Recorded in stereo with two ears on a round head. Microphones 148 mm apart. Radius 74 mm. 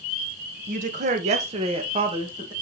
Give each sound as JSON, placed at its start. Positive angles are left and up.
{"t": 0.7, "sound": "a woman speaking", "side_deg": -45, "distance_m": 1.5}